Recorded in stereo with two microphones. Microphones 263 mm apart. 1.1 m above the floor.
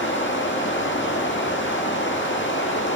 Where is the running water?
45° left (ahead or behind), 1.4 m.